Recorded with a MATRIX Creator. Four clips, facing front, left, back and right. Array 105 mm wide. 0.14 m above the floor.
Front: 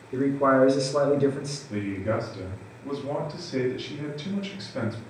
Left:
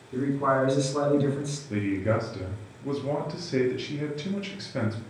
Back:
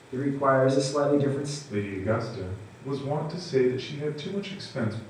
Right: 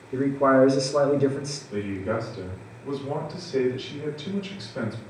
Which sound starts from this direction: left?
A man speaking, at 1.7 s.